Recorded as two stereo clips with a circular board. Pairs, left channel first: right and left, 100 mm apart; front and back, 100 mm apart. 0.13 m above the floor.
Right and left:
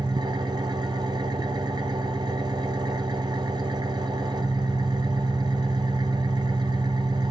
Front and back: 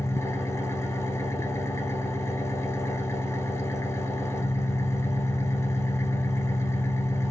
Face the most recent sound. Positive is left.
turn(degrees=55)